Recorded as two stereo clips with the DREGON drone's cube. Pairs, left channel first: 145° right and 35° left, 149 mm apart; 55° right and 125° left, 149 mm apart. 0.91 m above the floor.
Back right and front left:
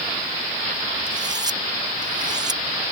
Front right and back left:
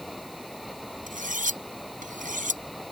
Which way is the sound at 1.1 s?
95° left.